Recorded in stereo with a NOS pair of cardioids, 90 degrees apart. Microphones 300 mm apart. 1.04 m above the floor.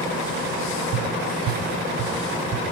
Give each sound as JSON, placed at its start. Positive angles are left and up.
{"t": 0.9, "sound": "tapping", "azimuth_deg": -60, "distance_m": 1.7}